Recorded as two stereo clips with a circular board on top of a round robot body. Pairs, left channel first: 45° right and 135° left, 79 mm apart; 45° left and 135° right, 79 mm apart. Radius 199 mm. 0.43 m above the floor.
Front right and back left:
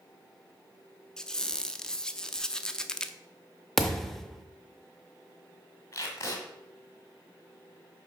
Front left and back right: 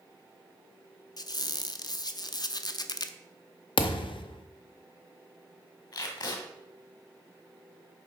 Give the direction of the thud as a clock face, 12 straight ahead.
11 o'clock.